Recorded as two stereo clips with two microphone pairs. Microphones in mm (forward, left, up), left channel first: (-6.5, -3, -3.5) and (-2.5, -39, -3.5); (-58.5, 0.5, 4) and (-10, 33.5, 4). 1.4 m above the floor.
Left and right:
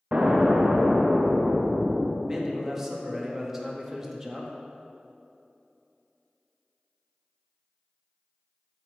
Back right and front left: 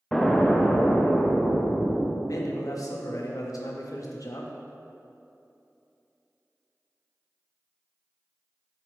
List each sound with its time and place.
0.1 s an explosion: 70° right, 0.7 m
2.3 s a man speaking: 160° right, 0.9 m